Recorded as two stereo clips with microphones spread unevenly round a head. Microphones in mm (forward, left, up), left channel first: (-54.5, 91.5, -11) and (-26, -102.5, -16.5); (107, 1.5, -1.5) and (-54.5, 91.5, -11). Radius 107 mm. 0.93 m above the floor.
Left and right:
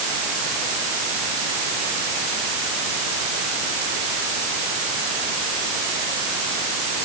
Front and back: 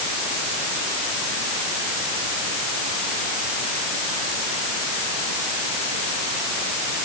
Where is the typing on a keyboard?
I don't hear typing on a keyboard.